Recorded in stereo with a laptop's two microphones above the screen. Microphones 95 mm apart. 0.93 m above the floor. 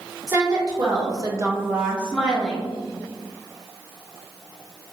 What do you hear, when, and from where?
0.3 s a woman speaking: 40° right (ahead or behind), 0.9 m; by 2.7 s centre (ahead or behind), 1.2 m